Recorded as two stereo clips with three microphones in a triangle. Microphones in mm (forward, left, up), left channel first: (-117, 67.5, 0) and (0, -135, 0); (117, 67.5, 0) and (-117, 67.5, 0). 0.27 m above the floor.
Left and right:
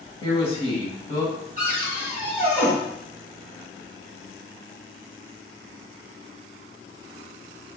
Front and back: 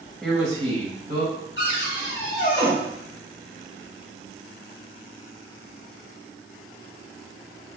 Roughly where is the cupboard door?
Ahead.